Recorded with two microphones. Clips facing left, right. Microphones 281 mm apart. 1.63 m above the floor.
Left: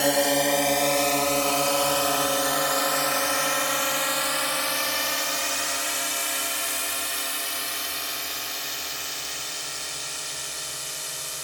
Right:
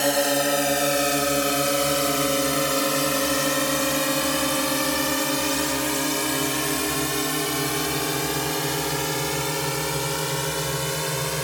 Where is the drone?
Centre (ahead or behind); by 11.4 s 90° right.